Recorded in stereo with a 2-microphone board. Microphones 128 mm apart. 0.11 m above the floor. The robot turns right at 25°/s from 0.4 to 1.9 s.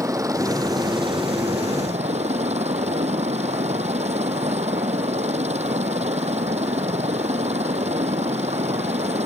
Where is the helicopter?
150° right; by 9.3 s 115° right.